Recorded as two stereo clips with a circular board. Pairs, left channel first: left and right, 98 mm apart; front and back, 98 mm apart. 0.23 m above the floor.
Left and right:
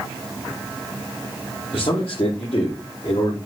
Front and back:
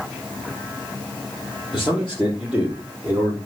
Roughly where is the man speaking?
Left.